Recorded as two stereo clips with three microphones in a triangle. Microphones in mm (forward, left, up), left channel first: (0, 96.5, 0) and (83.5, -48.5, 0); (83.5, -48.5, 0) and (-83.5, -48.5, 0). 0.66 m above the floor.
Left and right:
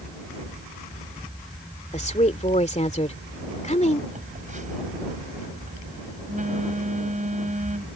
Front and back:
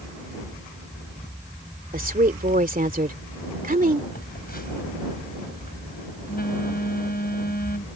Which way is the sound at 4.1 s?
20° right.